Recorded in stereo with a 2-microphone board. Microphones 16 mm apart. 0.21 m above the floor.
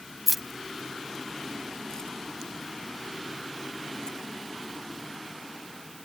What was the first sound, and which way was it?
Keys jangling, 15° right (ahead or behind).